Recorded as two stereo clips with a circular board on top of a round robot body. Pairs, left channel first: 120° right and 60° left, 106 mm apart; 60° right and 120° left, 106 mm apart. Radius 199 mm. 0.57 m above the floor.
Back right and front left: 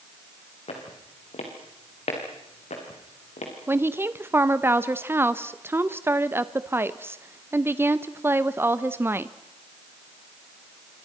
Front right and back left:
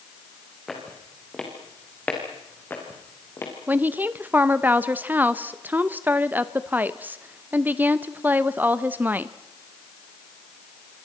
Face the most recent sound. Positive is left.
turn(degrees=80)